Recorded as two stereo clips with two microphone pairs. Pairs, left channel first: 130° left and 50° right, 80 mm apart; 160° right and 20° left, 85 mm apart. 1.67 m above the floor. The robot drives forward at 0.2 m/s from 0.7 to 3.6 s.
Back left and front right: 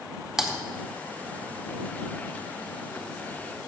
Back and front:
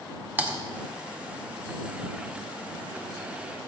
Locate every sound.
0.4 s typing on a keyboard: 25° left, 0.9 m